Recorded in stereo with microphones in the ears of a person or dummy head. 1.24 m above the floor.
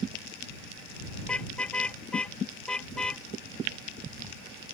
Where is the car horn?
10° left (ahead or behind).